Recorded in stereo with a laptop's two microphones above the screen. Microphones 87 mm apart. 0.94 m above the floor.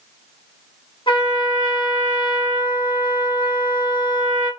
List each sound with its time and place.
1.1 s a trumpet: 80° left, 1.5 m